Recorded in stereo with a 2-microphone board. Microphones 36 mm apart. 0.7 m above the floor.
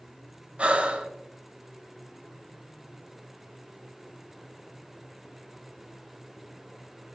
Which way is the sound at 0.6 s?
40° right (ahead or behind).